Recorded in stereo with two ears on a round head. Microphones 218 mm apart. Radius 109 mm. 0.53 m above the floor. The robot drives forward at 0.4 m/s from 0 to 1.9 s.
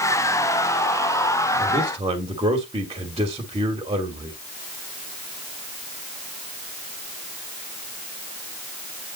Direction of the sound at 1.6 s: 20° right (ahead or behind).